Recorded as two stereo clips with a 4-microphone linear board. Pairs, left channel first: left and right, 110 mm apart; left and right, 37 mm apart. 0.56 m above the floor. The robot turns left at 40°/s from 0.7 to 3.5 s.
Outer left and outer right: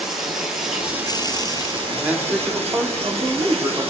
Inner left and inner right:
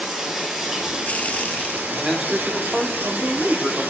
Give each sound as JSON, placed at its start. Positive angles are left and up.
{"t": 0.0, "sound": "running water", "azimuth_deg": -5, "distance_m": 2.0}
{"t": 1.9, "sound": "a man speaking", "azimuth_deg": -15, "distance_m": 1.3}